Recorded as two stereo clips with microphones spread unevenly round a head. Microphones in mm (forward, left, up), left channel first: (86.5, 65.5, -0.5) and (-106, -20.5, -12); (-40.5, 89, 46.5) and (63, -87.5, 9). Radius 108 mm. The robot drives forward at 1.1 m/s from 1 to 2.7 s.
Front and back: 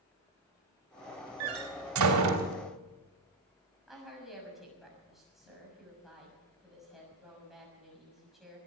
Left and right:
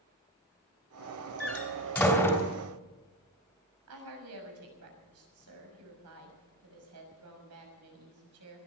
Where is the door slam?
150° right, 2.5 m; by 2.5 s 160° right, 3.5 m.